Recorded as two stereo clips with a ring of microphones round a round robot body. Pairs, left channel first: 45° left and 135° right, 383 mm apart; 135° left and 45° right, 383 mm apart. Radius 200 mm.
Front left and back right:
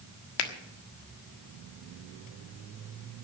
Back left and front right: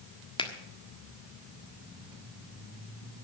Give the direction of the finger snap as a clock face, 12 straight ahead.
10 o'clock.